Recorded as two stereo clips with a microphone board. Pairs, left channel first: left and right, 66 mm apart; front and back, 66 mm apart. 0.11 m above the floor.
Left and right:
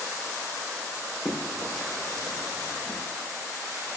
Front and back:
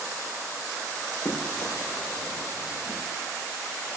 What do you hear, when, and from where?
1.2 s running footsteps: 60° left, 5.5 m; by 3.0 s 45° left, 6 m